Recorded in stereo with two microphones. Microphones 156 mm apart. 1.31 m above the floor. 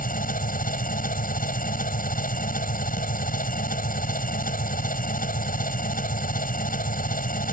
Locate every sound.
0.0 s an engine running: 65° left (ahead or behind)